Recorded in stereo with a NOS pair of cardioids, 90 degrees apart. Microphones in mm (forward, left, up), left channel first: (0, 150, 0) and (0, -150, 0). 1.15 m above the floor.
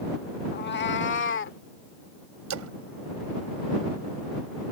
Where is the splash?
60° right.